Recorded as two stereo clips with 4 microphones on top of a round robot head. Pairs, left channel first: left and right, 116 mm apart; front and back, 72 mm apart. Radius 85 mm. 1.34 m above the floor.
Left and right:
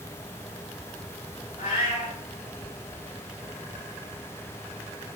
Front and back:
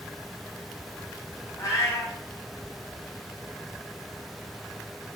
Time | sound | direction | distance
1.6 | a cat meowing | 40° left | 3 m